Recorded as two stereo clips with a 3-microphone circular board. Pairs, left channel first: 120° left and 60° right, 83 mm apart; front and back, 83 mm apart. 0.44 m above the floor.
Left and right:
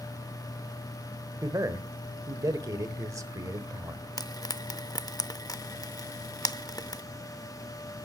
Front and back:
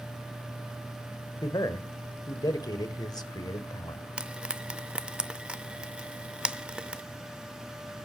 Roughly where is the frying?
Left.